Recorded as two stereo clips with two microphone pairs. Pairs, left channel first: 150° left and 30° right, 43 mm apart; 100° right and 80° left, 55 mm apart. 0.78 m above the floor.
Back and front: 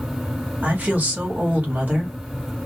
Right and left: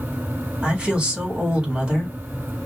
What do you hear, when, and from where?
0.6 s a woman speaking: 15° left, 1.5 m